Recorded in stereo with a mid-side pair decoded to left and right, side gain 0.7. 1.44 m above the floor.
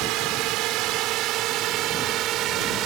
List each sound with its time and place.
0.0 s a drone: 65° right; by 2.9 s 50° right